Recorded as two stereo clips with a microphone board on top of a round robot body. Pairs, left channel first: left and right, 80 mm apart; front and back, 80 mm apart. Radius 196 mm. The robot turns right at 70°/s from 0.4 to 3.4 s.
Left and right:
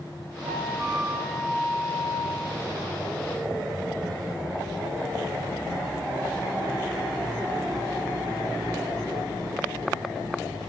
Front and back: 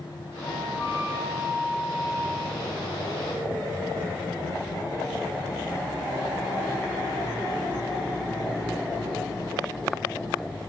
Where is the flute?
70° right, 2.5 m; by 2.6 s 85° left, 2.5 m.